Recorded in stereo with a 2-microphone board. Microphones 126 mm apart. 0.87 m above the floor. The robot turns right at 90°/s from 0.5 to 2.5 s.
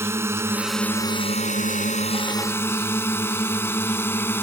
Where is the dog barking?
I don't hear a dog barking.